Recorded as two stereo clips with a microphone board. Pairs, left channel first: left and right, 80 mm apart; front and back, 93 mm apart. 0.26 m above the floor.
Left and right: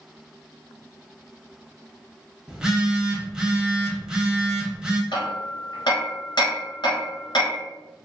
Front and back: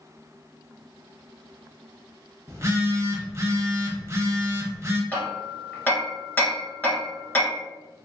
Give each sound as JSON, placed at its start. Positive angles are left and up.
{"t": 2.5, "sound": "a phone buzzing", "azimuth_deg": -165, "distance_m": 0.7}
{"t": 5.1, "sound": "hammering", "azimuth_deg": 70, "distance_m": 1.4}